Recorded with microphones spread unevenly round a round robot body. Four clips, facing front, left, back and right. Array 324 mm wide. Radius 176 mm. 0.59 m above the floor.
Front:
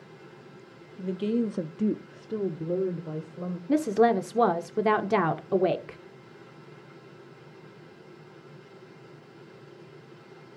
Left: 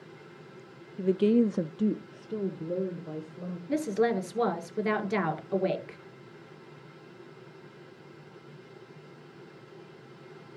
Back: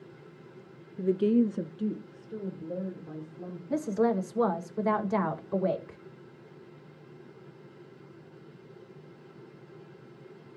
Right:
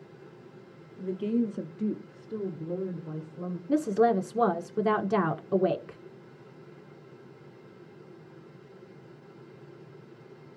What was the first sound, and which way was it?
A woman speaking, 140° left.